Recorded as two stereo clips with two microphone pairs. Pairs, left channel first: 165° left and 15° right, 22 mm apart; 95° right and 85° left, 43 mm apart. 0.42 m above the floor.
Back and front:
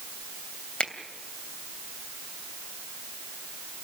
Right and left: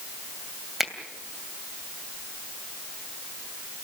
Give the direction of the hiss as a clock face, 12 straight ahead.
I don't hear a hiss.